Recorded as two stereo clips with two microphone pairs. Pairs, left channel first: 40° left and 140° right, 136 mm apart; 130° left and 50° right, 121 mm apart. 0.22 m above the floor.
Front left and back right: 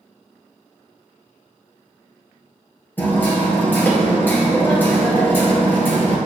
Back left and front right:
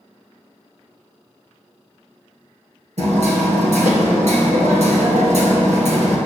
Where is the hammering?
40° right, 1.7 m.